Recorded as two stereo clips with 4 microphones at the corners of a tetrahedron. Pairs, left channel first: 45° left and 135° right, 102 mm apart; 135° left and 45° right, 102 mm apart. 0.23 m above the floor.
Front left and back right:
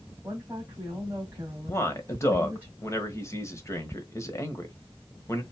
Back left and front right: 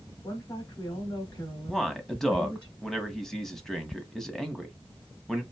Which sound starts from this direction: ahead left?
A man speaking, at 1.7 s.